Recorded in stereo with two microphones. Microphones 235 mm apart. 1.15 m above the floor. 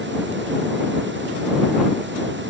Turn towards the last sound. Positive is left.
No sound to turn to.